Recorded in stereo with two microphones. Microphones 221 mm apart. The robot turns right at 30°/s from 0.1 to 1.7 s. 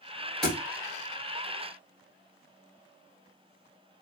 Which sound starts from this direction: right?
A thud, at 0.4 s.